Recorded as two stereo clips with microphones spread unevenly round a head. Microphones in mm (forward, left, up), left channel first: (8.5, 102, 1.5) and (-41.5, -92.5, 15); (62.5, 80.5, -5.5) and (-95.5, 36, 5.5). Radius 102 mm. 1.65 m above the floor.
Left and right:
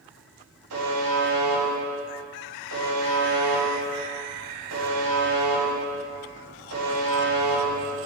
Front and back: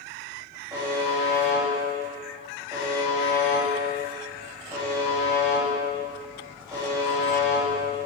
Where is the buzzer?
90° right, 3 m.